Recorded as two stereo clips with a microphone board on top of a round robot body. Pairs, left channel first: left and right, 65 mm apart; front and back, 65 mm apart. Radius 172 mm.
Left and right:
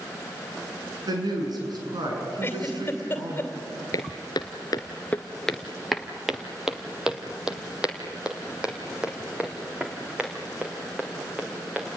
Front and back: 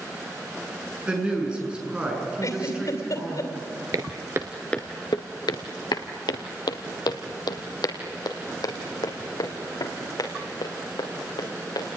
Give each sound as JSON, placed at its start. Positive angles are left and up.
{"t": 1.1, "sound": "a woman speaking", "azimuth_deg": -105, "distance_m": 7.0}
{"t": 2.4, "sound": "a giggle", "azimuth_deg": 30, "distance_m": 3.0}
{"t": 3.9, "sound": "footsteps", "azimuth_deg": 135, "distance_m": 0.7}